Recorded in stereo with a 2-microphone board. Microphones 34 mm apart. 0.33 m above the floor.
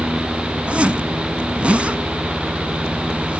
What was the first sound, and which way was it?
A zipper, 40° right (ahead or behind).